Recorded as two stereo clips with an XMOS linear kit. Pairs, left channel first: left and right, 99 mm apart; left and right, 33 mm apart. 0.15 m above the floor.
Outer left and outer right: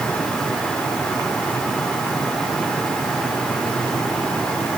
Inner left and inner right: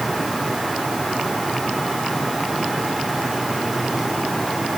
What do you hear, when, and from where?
Only background noise.